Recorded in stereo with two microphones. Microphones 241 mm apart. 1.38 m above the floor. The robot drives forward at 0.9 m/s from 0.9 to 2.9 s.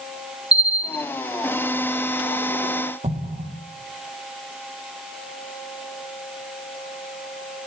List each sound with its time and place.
0.5 s a bell: 50° right (ahead or behind), 0.8 m; by 1.1 s 45° right (ahead or behind), 0.9 m
3.0 s an explosion: 30° right (ahead or behind), 1.5 m